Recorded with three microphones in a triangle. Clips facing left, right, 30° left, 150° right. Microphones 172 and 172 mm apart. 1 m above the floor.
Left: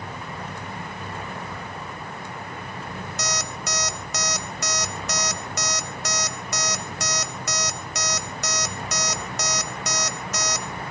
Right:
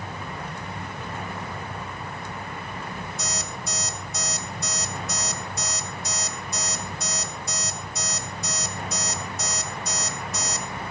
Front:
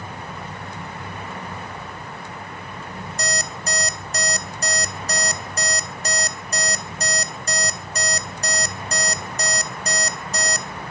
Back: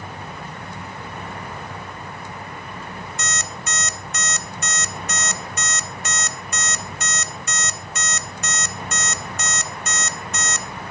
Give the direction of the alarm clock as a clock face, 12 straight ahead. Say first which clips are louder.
Left 2 dB, front 4 dB; 9 o'clock.